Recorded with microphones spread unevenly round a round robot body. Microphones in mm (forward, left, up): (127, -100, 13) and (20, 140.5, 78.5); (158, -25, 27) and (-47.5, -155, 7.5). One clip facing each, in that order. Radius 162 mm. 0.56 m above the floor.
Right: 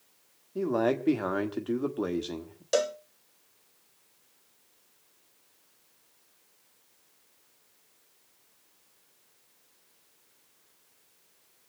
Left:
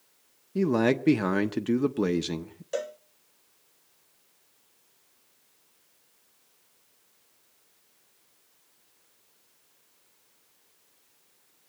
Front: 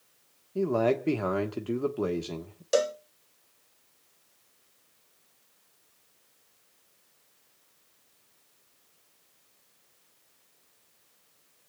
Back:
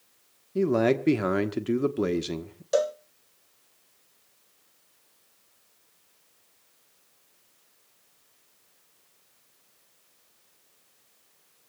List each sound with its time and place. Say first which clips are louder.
0.6 s a man speaking: left 3 dB, back 3 dB; 165° left, 1.3 m
2.7 s a cowbell: right 5 dB, back 1 dB; 30° right, 0.6 m